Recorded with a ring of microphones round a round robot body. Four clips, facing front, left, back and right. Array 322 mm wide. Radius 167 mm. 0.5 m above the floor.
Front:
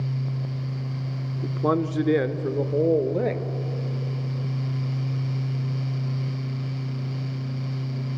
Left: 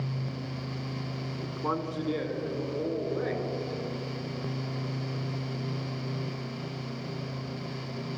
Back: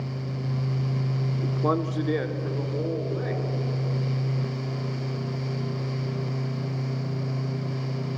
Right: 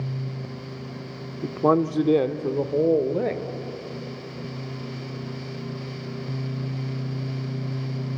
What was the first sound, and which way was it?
A man speaking, 90° right.